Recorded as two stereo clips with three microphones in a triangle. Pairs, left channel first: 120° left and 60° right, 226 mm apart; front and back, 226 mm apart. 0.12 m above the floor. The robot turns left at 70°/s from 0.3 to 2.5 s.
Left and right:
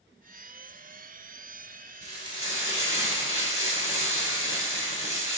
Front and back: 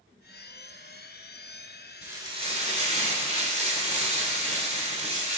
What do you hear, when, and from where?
2.0 s frying: 100° right, 1.1 m; by 5.4 s 135° right, 1.1 m